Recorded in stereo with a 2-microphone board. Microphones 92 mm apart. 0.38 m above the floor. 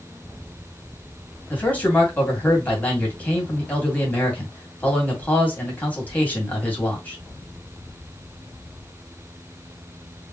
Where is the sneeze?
I don't hear a sneeze.